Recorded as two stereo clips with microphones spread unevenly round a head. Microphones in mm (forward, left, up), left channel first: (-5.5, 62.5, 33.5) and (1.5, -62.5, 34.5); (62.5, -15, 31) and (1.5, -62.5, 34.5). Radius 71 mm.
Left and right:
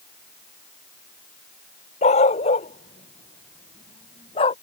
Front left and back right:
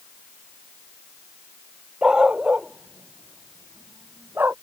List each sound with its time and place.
2.0 s a dog barking: 135° left; by 4.5 s 145° left